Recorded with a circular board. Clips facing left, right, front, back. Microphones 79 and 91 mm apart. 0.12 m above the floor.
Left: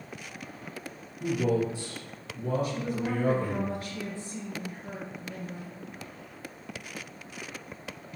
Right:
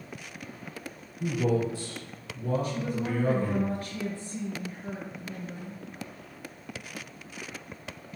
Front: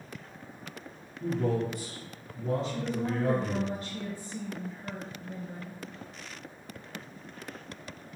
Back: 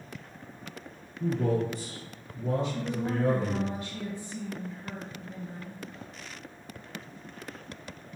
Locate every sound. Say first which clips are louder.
1.2 s a man speaking: even, back 1 dB; 145° left, 1.2 m
2.6 s a woman speaking: even, even; 45° right, 1.8 m